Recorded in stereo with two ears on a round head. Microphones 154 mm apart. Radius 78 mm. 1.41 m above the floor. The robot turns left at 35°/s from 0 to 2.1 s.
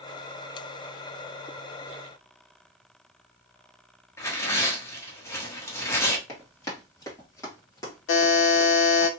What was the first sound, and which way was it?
Tearing paper, 15° left (ahead or behind).